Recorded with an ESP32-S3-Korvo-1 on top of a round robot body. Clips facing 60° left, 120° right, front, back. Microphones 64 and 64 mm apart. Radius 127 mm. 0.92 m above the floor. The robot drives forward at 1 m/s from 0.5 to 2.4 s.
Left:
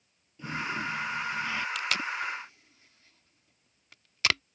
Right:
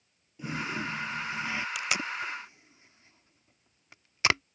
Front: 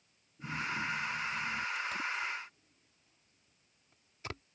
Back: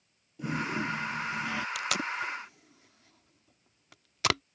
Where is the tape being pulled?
160° left; by 4.4 s 170° left.